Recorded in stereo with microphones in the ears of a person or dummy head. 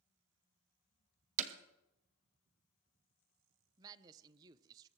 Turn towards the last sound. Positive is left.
turn(degrees=-20)  # may be behind; listen again after turning